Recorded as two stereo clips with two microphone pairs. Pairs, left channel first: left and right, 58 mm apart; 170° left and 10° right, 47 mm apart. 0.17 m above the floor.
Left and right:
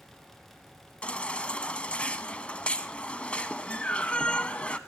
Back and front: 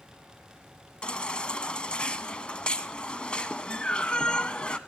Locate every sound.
1.0 s a baby crying: 135° left, 0.9 m